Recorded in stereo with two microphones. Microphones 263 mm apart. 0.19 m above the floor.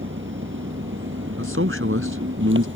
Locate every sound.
0.0 s an engine running: 50° right (ahead or behind)
1.4 s a man speaking: 55° right (ahead or behind)